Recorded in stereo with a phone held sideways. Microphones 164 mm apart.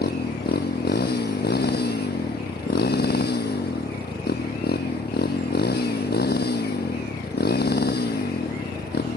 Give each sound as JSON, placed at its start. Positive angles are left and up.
{"t": 0.0, "sound": "a motorcycle", "side_deg": 75}